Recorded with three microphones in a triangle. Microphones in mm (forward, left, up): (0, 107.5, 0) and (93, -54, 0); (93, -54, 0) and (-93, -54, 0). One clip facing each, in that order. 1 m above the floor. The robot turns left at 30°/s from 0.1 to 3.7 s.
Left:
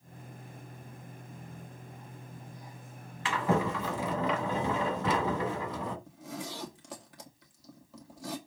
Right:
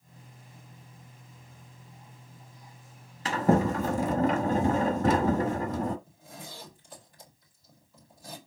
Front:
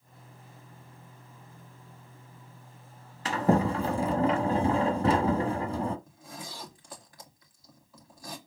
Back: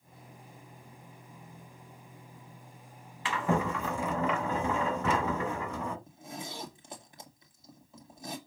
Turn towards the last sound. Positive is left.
turn(degrees=115)